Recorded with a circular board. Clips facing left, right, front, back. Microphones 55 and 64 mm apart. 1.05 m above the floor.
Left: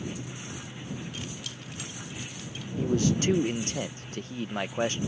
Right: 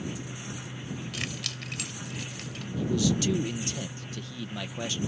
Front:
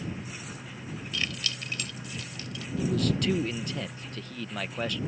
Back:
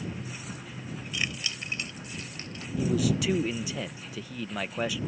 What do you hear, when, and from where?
1.1 s keys jangling: 105° right; by 2.7 s 125° right
2.8 s a man speaking: 100° left